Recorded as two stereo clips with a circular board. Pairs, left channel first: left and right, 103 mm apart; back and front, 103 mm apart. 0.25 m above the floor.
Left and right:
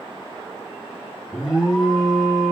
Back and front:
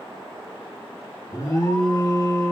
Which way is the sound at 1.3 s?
170° right.